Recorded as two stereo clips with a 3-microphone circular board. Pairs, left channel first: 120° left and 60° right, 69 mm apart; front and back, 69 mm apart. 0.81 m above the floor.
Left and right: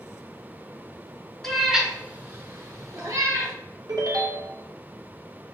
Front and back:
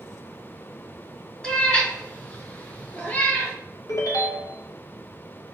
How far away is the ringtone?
About 0.6 m.